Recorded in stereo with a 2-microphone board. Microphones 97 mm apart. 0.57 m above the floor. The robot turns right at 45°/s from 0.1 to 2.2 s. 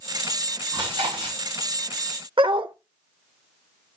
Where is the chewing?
40° right (ahead or behind), 6.5 m; by 1.4 s 70° right (ahead or behind), 6.5 m.